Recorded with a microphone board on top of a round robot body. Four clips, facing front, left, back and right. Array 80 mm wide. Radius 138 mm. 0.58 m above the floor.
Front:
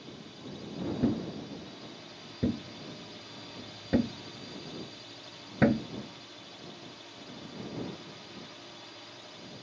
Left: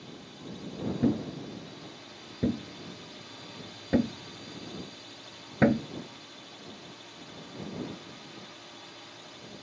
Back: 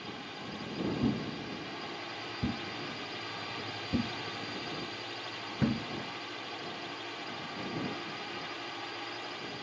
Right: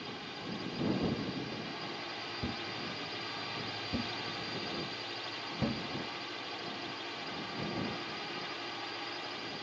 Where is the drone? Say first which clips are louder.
Right 2 dB, back 3 dB; 150° right.